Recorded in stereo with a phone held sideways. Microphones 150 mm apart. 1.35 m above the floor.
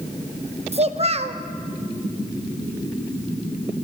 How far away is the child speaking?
About 0.6 m.